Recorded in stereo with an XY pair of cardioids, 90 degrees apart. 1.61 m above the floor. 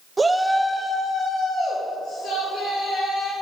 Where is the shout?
30° right, 0.6 m; by 3.3 s 70° left, 3 m.